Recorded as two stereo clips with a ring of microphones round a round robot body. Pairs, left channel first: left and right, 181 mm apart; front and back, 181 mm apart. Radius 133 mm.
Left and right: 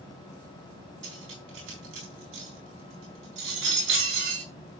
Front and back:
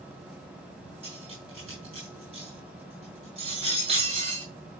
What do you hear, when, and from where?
1.0 s cutlery clinking: 110° right, 4.5 m